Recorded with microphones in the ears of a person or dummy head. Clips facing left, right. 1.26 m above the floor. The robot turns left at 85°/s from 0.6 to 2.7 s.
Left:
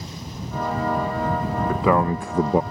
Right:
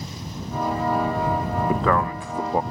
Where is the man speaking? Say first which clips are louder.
Left 4 dB; 170° right; by 2.6 s 110° left.